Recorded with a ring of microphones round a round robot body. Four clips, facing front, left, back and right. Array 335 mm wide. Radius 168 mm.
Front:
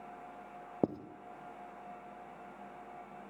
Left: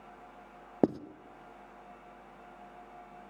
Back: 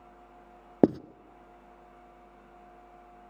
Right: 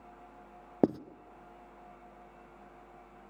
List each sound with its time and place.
0.8 s writing: 175° left, 0.7 m